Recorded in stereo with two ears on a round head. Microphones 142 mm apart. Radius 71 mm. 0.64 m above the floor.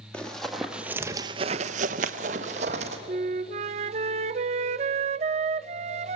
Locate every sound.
0.1 s running footsteps: 10° left (ahead or behind), 1.7 m; by 3.0 s 45° right (ahead or behind), 1.9 m
3.1 s a flute: 45° right (ahead or behind), 0.5 m